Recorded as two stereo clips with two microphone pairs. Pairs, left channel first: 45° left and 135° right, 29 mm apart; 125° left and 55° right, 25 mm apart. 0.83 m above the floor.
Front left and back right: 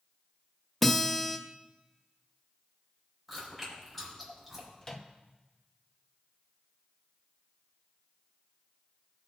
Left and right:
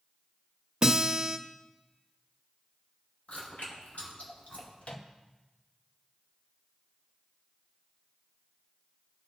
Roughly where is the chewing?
Behind left.